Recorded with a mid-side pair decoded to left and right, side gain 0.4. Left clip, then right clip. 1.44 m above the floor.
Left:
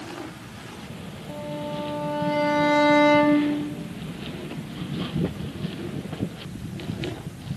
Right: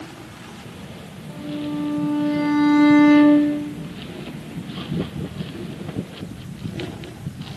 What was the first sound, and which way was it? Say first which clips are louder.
A violin: right 2 dB; 50° left.